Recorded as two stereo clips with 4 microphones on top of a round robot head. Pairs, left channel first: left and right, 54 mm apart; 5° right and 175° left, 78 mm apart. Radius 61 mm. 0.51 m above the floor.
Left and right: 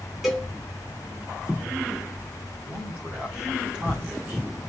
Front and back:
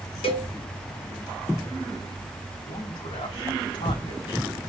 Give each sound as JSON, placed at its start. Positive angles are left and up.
{"t": 0.2, "sound": "a cowbell", "azimuth_deg": 0, "distance_m": 1.8}
{"t": 2.6, "sound": "a man speaking", "azimuth_deg": -20, "distance_m": 3.5}